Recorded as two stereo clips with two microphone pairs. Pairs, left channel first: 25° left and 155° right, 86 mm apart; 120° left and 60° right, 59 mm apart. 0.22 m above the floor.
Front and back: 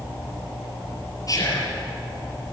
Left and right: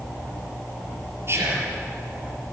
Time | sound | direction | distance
1.3 | whispering | 20° right | 5 m